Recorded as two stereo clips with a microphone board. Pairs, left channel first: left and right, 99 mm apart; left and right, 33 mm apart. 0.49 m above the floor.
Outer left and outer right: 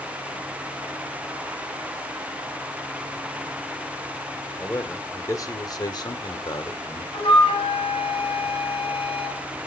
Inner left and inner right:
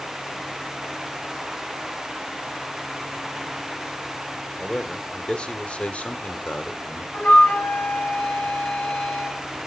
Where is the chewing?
I don't hear chewing.